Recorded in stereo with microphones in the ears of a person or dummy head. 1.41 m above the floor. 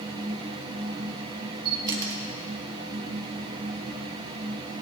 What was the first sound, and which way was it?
A camera shutter, 25° right (ahead or behind).